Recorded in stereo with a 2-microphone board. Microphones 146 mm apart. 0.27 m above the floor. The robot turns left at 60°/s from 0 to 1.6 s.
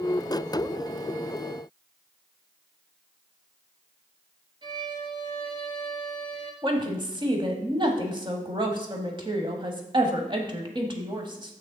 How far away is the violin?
About 1.8 m.